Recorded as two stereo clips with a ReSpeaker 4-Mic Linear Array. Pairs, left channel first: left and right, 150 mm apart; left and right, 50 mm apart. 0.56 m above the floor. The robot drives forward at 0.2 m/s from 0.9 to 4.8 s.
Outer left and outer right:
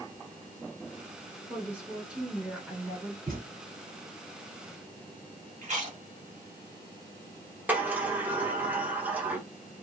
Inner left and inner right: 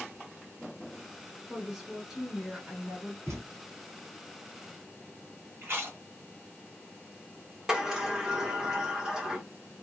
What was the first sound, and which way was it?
A woman speaking, 10° right (ahead or behind).